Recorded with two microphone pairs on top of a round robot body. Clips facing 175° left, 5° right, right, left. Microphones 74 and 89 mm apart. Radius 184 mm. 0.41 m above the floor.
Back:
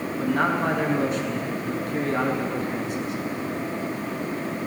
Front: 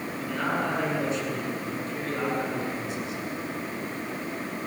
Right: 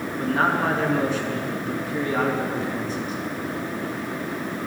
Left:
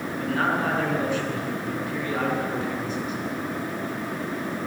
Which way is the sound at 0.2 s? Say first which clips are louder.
Back 6 dB, right 3 dB; 165° right.